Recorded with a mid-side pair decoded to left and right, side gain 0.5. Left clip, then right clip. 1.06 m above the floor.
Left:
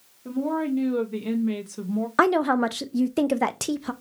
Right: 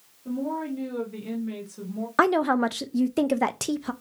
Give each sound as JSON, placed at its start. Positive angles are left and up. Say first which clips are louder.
{"t": 0.2, "sound": "a woman speaking", "louder": "left 4 dB", "azimuth_deg": 45, "distance_m": 2.0}
{"t": 2.2, "sound": "a woman speaking", "louder": "left 1 dB", "azimuth_deg": 0, "distance_m": 0.6}